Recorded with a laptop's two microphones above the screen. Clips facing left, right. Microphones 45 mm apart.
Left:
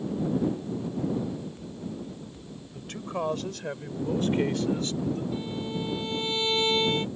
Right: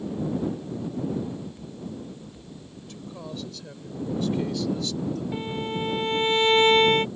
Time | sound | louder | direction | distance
2.7 | a man speaking | left 9 dB | 60° left (ahead or behind) | ?
5.3 | a violin | right 3 dB | 45° right (ahead or behind) | ?